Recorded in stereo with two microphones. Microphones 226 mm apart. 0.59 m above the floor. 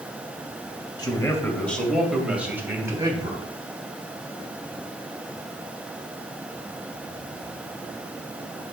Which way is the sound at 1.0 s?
15° left (ahead or behind).